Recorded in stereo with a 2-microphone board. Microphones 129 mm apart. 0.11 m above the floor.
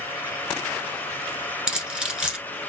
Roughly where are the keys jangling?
Centre.